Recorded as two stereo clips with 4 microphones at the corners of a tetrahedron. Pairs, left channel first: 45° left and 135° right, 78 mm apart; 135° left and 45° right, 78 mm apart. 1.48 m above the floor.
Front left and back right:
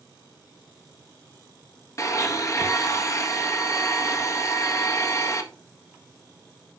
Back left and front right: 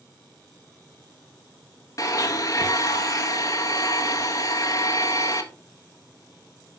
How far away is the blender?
About 1.5 m.